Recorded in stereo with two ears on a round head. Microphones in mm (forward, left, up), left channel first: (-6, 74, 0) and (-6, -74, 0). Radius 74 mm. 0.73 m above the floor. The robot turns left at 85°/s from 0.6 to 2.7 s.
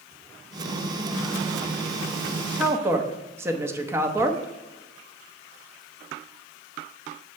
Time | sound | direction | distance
2.6 | a woman speaking | 10° right (ahead or behind) | 0.8 m